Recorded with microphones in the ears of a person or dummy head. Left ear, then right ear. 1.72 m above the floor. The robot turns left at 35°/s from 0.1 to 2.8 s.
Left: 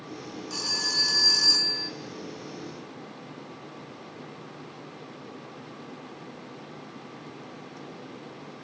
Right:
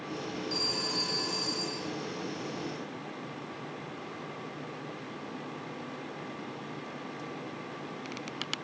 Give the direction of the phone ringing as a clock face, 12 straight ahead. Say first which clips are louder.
Left 5 dB; 7 o'clock.